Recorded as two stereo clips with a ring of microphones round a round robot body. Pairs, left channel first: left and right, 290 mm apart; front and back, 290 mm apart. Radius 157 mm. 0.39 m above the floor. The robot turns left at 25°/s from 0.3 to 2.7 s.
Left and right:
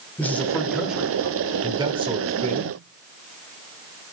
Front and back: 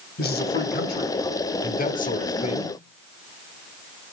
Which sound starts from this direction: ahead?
A man speaking, at 0.2 s.